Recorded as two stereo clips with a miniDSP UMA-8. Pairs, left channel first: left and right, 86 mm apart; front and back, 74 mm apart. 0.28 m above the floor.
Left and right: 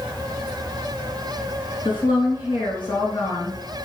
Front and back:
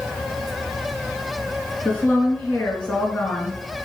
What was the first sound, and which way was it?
A woman speaking, 75° left.